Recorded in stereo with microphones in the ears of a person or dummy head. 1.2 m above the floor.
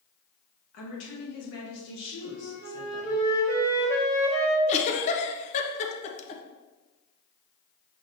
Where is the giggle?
35° left (ahead or behind), 0.5 m.